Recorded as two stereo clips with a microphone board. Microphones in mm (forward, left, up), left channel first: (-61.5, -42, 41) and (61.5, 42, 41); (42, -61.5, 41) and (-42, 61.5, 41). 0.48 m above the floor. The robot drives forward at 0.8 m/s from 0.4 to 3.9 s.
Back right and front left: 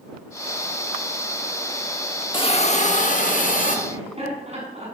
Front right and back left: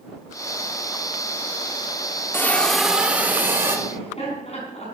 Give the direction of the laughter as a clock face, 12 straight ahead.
12 o'clock.